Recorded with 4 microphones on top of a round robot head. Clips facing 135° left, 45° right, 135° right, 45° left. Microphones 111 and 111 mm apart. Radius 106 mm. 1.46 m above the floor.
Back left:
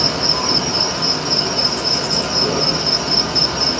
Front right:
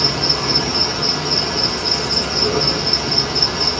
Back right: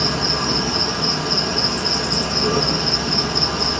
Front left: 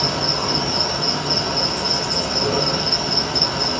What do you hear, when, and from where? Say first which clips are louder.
0.0 s an insect: back left 1 dB, even; 85° left, 2.5 m